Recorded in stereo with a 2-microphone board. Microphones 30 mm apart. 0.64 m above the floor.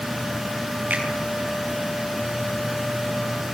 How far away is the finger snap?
About 9 m.